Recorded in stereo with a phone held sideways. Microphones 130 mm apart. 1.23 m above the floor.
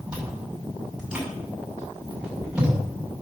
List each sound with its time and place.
0.1 s chewing: 10° right (ahead or behind), 6 m